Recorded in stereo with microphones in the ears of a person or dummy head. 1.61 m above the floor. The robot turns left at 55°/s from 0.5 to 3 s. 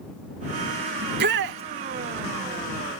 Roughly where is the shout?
Ahead right.